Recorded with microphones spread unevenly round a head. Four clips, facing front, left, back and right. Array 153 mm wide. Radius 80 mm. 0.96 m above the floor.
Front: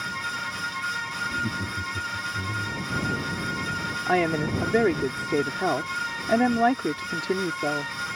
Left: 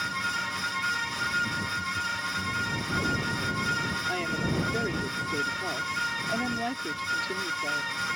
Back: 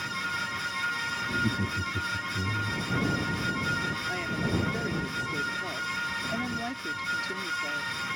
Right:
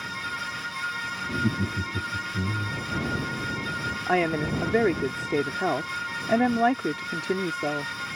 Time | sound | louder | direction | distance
1.3 | laughter | right 6 dB, back 3 dB | 105° right | ?
4.1 | a woman speaking | right 9 dB, front 12 dB | 40° right | ?